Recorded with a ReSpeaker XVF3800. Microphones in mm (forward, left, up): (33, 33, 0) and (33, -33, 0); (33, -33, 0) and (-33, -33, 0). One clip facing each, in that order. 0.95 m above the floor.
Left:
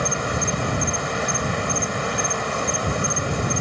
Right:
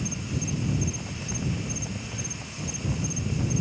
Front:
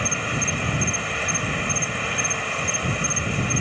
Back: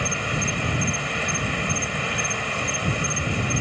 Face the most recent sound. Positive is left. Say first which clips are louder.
# left 9 dB, even
turn(degrees=90)